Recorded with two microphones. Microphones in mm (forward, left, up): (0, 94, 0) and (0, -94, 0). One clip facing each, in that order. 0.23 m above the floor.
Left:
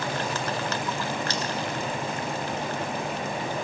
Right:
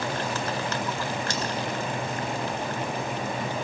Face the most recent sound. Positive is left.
turn(degrees=-50)  # may be behind; listen again after turning